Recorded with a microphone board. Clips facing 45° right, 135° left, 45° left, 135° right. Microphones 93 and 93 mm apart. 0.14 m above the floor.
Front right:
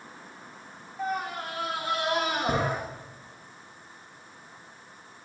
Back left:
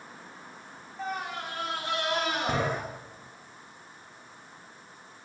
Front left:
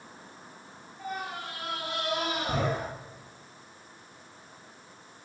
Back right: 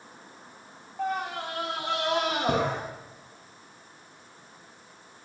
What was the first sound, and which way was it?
A scream, 130° right.